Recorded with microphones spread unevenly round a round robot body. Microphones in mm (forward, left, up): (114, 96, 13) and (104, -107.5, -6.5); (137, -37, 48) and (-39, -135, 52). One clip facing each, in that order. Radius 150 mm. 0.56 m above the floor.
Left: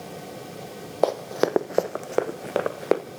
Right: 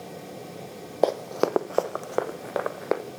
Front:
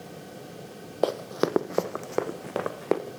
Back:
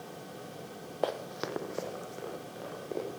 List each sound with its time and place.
1.0 s running footsteps: 5° right, 1.4 m; by 3.0 s 35° left, 3.5 m